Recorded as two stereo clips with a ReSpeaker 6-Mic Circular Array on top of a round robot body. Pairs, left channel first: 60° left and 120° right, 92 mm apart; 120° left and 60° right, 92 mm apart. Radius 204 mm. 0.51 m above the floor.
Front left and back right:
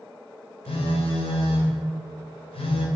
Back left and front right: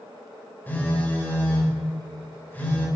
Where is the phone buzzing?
50° left, 1.8 m.